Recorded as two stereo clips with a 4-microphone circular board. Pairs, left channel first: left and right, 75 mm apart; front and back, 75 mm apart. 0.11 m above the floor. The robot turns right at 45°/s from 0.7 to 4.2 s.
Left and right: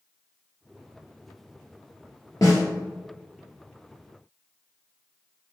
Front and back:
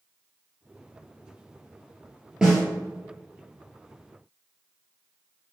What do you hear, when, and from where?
2.4 s a snare drum: 100° left, 1.5 m; by 2.6 s 110° left, 1.5 m